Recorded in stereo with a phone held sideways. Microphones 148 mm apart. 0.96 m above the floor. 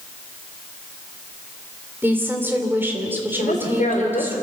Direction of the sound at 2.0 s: 15° right (ahead or behind).